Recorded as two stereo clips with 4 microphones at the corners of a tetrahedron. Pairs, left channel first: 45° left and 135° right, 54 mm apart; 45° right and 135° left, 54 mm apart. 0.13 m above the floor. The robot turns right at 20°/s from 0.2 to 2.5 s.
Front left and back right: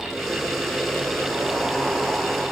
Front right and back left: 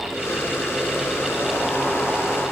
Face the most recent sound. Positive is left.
No sound to turn to.